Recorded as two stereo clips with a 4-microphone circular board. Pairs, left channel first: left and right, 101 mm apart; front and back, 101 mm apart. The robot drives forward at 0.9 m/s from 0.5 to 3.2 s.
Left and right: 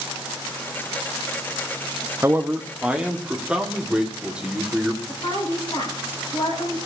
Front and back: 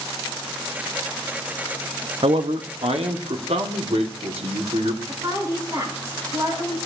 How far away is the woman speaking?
About 4.5 m.